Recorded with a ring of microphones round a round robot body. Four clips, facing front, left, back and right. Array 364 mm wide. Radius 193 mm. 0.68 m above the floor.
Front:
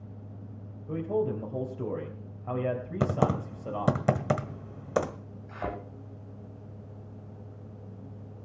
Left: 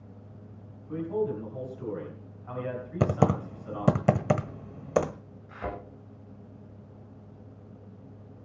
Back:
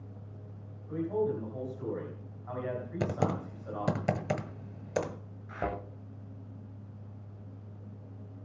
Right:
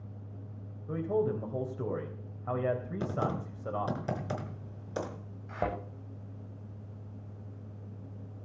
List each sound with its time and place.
0.9 s a man speaking: 45° right, 3 m
3.0 s typing on a keyboard: 70° left, 1.4 m
5.5 s a thud: 110° right, 9 m